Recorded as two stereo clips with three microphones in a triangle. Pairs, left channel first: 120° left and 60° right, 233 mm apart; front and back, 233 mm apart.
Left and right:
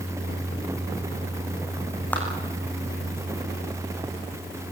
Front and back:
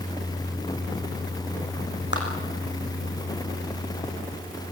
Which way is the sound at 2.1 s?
35° left.